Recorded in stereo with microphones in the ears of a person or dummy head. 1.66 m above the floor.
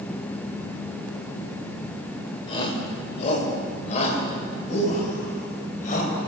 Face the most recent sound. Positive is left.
turn(degrees=50)  # may be behind; listen again after turning